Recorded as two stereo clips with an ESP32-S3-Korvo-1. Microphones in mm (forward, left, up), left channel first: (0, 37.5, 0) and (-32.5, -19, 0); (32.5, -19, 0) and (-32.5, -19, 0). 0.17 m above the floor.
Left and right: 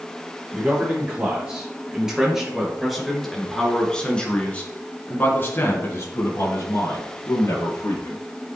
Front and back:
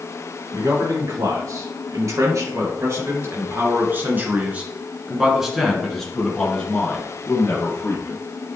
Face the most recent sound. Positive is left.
turn(degrees=45)